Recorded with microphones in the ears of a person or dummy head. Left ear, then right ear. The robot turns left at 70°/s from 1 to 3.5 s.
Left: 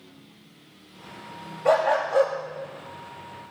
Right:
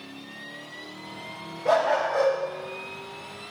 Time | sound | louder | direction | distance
1.6 | a dog barking | left 1 dB | 25° left (ahead or behind) | 0.8 m